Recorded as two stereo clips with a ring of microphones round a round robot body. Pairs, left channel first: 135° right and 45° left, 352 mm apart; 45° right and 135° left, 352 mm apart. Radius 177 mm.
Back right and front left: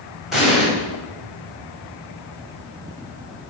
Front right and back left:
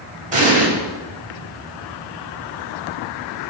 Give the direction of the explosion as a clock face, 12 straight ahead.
8 o'clock.